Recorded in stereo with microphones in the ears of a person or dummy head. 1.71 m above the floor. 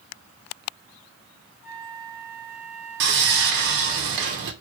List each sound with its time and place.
1.6 s a flute: 60° left (ahead or behind), 1.1 m
3.0 s sawing: 55° right (ahead or behind), 0.6 m